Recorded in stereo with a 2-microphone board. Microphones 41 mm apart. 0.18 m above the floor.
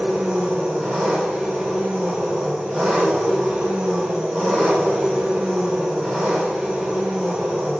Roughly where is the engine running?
Right.